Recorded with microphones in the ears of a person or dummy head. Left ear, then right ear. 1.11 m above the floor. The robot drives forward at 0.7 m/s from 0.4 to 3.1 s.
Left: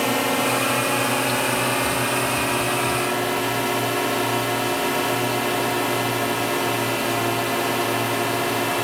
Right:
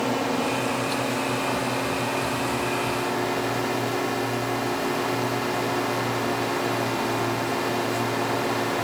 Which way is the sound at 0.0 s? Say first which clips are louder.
Left 4 dB; 40° left (ahead or behind).